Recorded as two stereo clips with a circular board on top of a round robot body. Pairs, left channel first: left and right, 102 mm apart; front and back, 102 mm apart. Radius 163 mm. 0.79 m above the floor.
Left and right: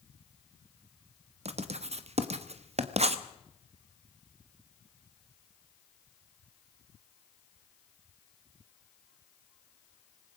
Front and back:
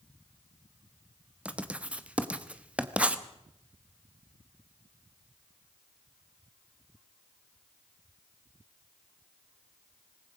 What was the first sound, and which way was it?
Writing, 100° right.